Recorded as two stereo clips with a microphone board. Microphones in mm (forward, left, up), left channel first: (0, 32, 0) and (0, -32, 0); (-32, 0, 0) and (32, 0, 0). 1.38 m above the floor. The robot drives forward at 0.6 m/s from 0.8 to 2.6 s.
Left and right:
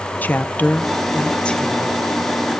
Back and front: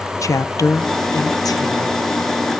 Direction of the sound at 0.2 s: 155° left.